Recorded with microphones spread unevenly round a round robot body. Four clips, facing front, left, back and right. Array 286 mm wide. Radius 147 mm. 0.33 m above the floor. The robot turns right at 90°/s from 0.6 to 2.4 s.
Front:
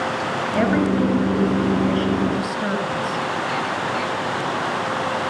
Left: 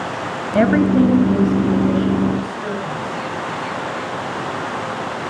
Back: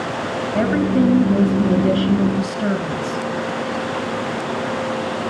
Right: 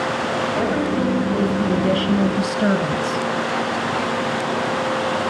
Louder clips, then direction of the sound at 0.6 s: Left 10 dB, back 2 dB; 90° left.